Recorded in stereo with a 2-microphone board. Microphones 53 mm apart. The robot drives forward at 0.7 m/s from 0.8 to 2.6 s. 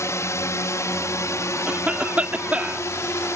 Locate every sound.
0.0 s a drone: 65° left (ahead or behind); by 3.4 s 60° left (ahead or behind)
1.7 s a cough: 25° right (ahead or behind); by 2.9 s 30° right (ahead or behind)